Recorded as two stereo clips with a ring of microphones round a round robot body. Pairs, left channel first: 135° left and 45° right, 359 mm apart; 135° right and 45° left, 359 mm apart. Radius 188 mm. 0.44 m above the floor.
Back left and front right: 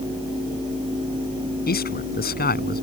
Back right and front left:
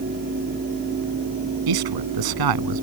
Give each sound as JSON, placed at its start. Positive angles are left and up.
{"t": 1.7, "sound": "a man speaking", "azimuth_deg": 70}